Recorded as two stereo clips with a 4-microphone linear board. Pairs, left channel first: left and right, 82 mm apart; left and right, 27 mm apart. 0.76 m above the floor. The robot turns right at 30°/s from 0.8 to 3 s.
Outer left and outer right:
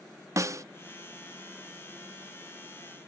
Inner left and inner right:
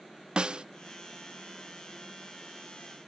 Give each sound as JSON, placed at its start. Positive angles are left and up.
{"t": 0.4, "sound": "a snare drum", "side_deg": -40, "distance_m": 0.5}